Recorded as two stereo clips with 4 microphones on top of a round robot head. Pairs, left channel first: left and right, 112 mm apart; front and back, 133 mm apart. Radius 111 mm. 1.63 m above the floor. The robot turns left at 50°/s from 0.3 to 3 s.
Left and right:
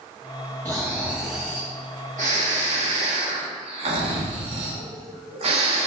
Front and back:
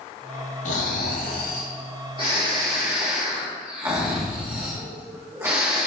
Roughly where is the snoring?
Ahead.